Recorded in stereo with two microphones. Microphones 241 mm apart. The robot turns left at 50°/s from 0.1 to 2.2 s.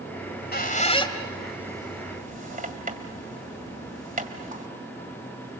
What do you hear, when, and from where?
0.2 s a squeak: 55° left (ahead or behind), 1.9 m; by 4.7 s 35° right (ahead or behind), 1.9 m